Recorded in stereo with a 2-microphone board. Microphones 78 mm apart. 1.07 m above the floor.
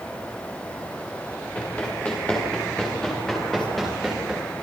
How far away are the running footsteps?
About 9 m.